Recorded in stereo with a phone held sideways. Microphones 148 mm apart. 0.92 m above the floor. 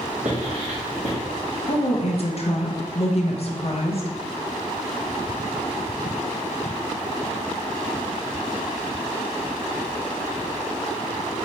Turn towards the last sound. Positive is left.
turn(degrees=45)  # may be behind; listen again after turning